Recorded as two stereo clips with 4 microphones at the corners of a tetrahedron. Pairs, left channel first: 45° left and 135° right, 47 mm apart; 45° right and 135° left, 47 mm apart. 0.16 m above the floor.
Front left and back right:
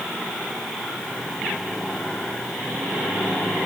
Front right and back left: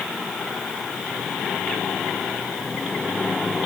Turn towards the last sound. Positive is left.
No sound to turn to.